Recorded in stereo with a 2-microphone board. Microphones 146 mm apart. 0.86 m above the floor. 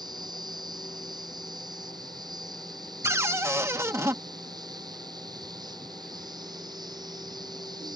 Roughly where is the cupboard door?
Centre.